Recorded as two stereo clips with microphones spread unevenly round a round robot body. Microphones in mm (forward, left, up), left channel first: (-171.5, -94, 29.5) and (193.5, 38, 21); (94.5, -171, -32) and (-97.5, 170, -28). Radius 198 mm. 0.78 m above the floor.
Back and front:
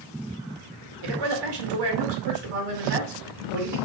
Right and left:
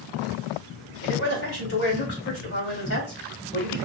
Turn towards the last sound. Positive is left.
turn(degrees=-5)